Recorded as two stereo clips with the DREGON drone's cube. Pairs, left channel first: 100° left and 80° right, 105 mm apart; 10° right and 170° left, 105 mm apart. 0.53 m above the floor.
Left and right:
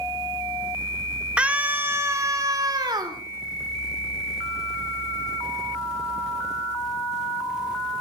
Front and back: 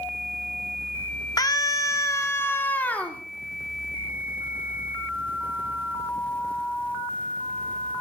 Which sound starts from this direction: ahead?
A scream, at 1.4 s.